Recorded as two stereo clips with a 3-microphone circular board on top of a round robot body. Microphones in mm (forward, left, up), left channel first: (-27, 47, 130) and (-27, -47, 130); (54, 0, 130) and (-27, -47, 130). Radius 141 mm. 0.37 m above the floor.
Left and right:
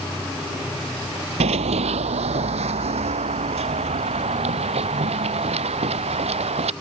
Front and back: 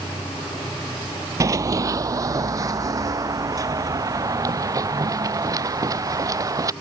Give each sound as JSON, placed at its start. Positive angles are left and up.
{"t": 1.4, "sound": "running footsteps", "azimuth_deg": -95}